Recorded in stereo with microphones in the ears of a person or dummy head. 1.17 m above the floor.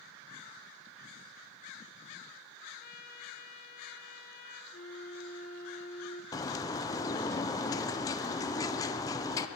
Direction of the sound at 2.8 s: 45° left (ahead or behind).